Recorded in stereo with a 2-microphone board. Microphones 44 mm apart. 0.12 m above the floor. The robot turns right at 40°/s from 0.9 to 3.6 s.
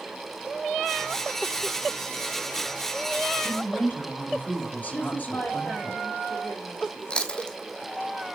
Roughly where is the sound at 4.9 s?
Left.